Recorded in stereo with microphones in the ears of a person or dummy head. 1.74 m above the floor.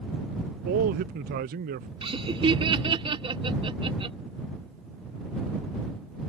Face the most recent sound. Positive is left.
turn(degrees=-30)  # may be behind; listen again after turning